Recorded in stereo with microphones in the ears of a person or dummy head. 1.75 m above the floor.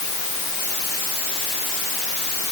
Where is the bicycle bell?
I don't hear a bicycle bell.